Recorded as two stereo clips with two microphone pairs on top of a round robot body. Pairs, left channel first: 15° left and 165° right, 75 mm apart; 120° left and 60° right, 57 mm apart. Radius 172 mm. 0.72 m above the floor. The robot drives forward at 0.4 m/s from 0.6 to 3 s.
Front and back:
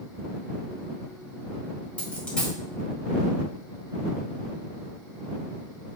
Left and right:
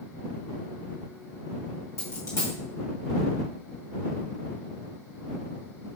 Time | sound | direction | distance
2.0 | a dropped coin | 85° left | 1.6 m